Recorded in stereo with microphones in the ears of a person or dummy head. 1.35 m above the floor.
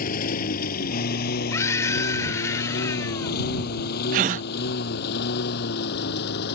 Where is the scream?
15° left (ahead or behind).